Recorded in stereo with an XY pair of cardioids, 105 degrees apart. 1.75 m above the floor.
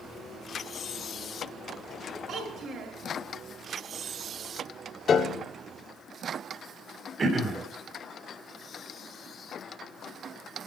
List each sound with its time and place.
2.3 s a child speaking: 60° right, 6 m
5.1 s a piano: 50° left, 1.1 m
7.2 s throat clearing: 40° right, 2.5 m